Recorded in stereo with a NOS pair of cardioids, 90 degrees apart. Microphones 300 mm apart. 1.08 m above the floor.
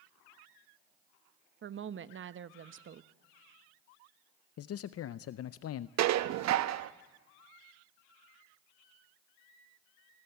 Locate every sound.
1.6 s a woman speaking: 40° right, 1.0 m
4.6 s a man speaking: 55° left, 0.5 m
6.0 s dishes clattering: 65° right, 0.8 m